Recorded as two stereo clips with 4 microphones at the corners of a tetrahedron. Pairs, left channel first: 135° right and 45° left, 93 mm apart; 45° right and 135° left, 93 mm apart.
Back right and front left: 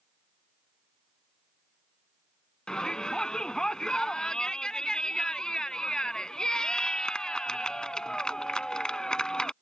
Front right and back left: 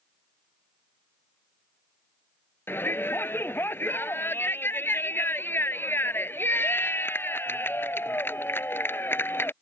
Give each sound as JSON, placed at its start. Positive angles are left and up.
{"t": 2.7, "sound": "a shout", "azimuth_deg": -65}